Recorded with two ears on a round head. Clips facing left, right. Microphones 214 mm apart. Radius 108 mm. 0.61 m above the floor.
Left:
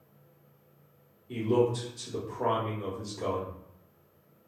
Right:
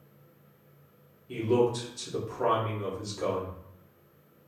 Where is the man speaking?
5° right (ahead or behind), 0.8 m.